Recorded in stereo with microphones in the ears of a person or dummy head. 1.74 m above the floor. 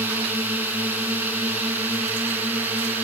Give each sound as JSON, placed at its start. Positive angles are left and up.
{"t": 0.0, "sound": "a drone", "side_deg": -10}